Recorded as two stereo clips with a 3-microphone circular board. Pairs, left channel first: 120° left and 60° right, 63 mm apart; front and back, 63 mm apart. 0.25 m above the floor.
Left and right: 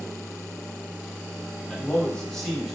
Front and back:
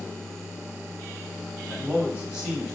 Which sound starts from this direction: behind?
A man speaking, at 1.7 s.